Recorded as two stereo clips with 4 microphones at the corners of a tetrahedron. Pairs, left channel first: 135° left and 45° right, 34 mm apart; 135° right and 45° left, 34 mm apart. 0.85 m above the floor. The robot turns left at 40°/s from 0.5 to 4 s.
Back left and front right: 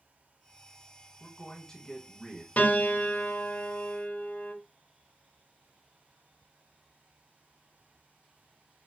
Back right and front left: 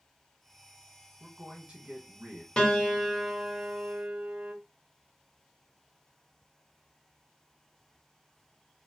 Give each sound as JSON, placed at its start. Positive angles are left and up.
{"t": 1.2, "sound": "a man speaking", "azimuth_deg": 100, "distance_m": 1.3}
{"t": 2.6, "sound": "a piano", "azimuth_deg": 160, "distance_m": 0.6}